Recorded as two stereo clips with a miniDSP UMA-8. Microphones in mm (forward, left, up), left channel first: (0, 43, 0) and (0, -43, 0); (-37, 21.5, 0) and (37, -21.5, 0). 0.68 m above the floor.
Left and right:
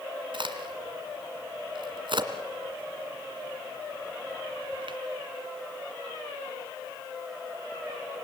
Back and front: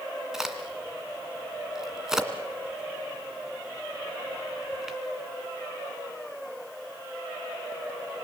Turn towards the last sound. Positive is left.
turn(degrees=-115)